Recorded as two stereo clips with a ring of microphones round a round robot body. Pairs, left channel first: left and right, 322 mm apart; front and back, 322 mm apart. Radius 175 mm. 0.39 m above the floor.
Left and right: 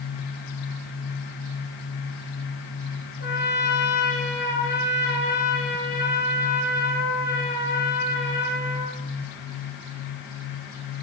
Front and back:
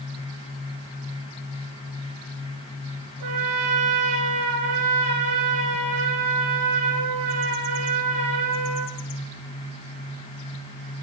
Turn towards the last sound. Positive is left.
turn(degrees=155)